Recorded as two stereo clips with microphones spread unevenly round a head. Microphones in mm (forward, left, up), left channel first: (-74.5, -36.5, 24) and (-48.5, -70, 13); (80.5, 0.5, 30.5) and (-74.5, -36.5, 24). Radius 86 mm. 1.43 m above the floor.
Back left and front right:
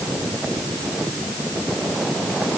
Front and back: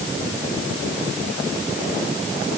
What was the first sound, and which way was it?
Only background noise.